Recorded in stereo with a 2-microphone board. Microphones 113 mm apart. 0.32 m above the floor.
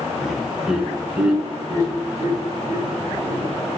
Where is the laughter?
Centre (ahead or behind), 1.0 m; by 3.4 s 20° right (ahead or behind), 2.5 m.